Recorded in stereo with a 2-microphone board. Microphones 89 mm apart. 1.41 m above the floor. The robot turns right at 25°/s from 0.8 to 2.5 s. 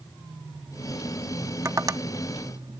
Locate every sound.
1.6 s tapping: 35° right (ahead or behind); by 2.8 s 55° right (ahead or behind)